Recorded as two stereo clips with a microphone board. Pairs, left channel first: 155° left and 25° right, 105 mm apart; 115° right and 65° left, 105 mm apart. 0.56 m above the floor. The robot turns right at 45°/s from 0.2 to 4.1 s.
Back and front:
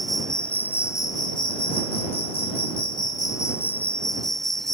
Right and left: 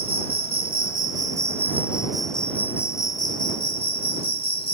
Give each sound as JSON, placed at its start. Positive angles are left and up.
{"t": 0.0, "sound": "an insect", "azimuth_deg": 70}